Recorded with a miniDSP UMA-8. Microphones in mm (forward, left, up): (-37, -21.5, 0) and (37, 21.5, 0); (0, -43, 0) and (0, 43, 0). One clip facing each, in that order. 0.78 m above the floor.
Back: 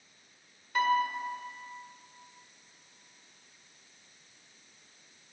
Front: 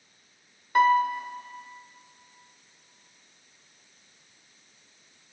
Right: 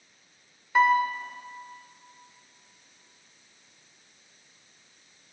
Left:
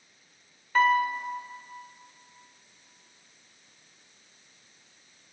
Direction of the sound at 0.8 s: 10° right.